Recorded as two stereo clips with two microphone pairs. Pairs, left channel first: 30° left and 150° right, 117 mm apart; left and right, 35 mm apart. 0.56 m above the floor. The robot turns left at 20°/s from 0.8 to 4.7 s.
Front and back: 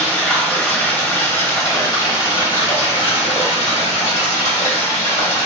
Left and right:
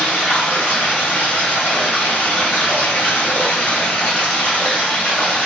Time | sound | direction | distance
0.0 | running water | 110° left | 1.3 m